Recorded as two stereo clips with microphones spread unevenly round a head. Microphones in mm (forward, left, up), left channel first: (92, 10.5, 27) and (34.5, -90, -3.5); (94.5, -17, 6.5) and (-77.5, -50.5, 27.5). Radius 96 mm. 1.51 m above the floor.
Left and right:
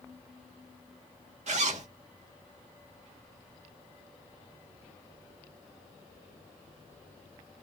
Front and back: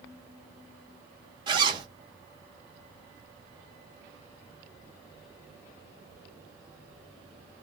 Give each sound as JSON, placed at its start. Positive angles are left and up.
{"t": 1.5, "sound": "a zipper", "azimuth_deg": -125, "distance_m": 1.4}